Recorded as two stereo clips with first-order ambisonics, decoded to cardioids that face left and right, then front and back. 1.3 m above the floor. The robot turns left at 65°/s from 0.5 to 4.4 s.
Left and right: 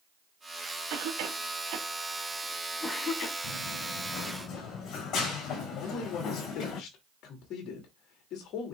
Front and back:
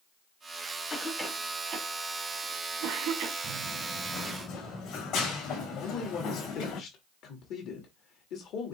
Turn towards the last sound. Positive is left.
turn(degrees=45)